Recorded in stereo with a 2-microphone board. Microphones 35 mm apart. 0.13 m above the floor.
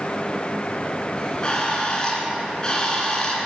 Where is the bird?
25° left (ahead or behind), 1.9 m.